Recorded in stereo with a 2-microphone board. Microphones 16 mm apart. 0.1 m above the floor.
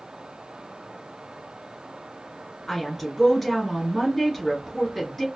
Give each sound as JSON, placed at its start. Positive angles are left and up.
{"t": 2.7, "sound": "a woman speaking", "side_deg": 5, "distance_m": 1.5}